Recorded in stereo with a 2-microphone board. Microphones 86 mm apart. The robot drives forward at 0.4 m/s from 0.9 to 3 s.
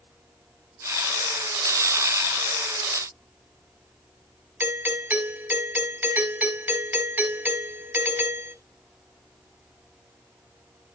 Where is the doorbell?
25° right (ahead or behind), 2.0 m.